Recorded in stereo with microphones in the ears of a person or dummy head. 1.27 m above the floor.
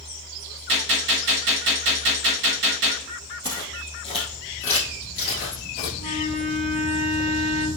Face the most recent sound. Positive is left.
turn(degrees=-5)  # may be behind; listen again after turning